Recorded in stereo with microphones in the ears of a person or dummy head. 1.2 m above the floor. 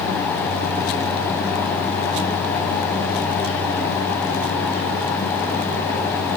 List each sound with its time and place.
Only background noise.